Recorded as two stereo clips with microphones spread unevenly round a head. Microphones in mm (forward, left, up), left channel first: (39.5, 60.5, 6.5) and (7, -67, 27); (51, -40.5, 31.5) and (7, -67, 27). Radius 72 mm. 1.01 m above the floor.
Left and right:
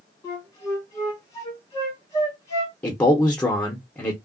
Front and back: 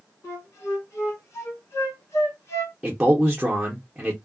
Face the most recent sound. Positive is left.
turn(degrees=145)